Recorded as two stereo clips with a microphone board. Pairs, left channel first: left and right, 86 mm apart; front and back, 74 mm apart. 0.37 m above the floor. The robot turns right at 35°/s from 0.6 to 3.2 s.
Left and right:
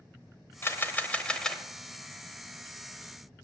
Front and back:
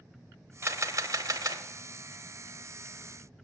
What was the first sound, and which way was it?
A camera shutter, 140° left.